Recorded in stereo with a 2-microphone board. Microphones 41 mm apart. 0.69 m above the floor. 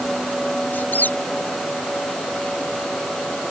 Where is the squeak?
55° left (ahead or behind).